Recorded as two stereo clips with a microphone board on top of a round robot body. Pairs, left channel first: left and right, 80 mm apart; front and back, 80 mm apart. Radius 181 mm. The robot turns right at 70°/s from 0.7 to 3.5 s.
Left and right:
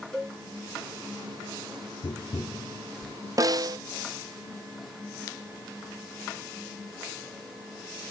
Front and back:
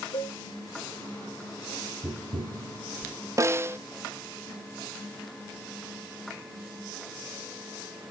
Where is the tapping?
120° left, 1.3 m; by 3.1 s 160° right, 1.3 m.